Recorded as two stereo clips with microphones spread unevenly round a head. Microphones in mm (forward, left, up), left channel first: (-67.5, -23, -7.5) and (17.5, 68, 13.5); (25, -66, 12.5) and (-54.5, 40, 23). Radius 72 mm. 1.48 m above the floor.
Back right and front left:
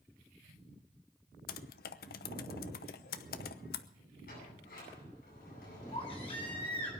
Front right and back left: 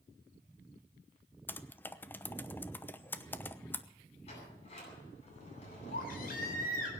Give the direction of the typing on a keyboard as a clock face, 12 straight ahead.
4 o'clock.